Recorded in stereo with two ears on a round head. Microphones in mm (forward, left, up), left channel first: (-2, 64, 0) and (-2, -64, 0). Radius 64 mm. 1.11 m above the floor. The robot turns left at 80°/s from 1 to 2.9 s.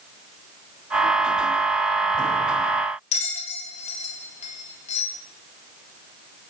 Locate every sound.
3.1 s a bell: 50° left (ahead or behind), 3 m